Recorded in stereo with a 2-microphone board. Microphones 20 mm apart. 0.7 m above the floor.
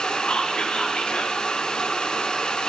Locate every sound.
0.3 s whispering: 55° left (ahead or behind), 1.1 m